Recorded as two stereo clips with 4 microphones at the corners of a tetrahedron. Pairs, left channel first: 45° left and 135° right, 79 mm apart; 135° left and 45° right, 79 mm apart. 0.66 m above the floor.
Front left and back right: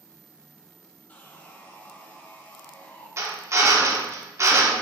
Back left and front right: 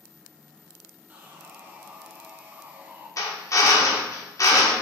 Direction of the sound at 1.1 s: 5° right.